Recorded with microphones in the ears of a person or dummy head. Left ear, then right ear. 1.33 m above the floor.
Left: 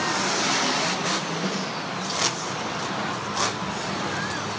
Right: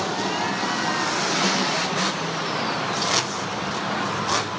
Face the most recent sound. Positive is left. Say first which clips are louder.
# right 6 dB
turn(degrees=-15)  # may be behind; listen again after turning